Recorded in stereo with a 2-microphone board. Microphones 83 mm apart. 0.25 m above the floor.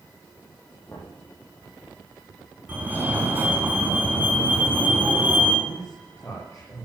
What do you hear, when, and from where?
0.9 s knocking: 25° left (ahead or behind), 8 m
2.7 s a fire alarm: 25° right (ahead or behind), 4 m
5.7 s a man speaking: 35° left (ahead or behind), 6 m